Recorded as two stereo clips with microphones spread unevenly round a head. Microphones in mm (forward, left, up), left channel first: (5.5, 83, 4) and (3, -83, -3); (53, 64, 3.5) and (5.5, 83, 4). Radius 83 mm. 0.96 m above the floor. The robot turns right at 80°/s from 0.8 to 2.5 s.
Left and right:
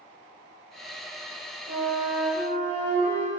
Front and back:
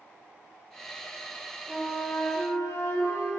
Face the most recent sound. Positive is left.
turn(degrees=-45)